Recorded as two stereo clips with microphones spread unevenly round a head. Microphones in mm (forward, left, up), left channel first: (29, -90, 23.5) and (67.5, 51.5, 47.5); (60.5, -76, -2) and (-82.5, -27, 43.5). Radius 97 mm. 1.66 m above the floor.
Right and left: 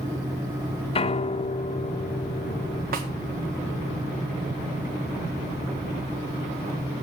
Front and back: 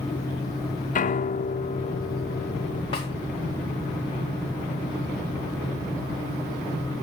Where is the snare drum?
50° left, 1.8 m.